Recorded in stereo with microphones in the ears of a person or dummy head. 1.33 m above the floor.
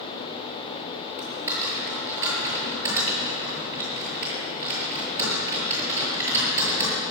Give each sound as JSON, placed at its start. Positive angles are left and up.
{"t": 1.2, "sound": "typing on a keyboard", "side_deg": -15, "distance_m": 7.0}